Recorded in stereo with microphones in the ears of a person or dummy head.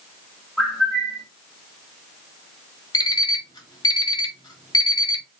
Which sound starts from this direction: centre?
A bird, at 0.6 s.